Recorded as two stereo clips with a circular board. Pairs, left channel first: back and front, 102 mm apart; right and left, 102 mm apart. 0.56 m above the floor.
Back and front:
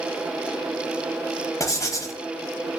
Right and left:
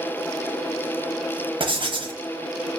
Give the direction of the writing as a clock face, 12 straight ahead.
8 o'clock.